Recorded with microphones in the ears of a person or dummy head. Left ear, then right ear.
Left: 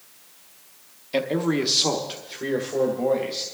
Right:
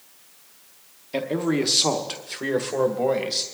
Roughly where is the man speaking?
Centre.